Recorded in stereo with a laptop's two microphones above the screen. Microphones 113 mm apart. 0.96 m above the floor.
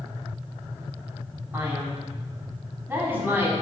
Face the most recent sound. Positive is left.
turn(degrees=-20)  # may be behind; listen again after turning